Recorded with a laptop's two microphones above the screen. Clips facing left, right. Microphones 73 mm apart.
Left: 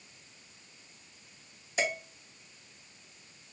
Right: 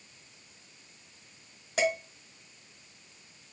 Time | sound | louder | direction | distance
1.8 | dishes clattering | right 4 dB | 65° right (ahead or behind) | 1.7 m